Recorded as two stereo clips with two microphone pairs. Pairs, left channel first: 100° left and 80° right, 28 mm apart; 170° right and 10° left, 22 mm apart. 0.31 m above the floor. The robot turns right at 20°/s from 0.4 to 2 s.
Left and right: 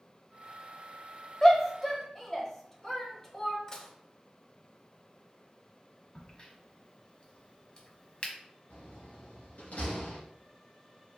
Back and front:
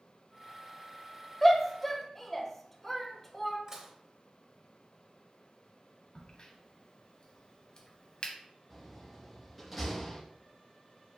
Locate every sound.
1.4 s a shout: 120° left, 1.0 m; by 3.6 s 135° left, 1.0 m
3.7 s dishes clattering: 55° left, 0.7 m
6.2 s a crack: 150° left, 1.1 m
8.7 s a door slam: 100° left, 2.5 m